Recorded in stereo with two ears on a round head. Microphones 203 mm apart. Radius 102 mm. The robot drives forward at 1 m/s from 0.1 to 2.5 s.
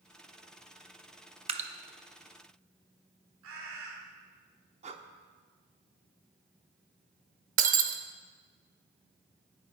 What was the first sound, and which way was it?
Dripping, 25° right (ahead or behind).